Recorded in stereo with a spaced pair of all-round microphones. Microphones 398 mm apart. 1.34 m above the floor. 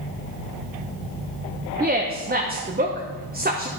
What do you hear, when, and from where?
1.8 s a woman speaking: 25° right (ahead or behind), 0.7 m